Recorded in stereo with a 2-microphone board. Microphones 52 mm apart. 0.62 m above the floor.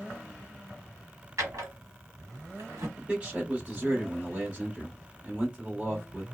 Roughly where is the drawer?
Right.